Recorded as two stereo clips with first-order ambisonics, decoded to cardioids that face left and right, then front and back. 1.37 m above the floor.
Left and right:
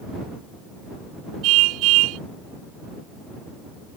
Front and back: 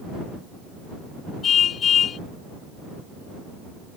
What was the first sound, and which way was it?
A car horn, 60° right.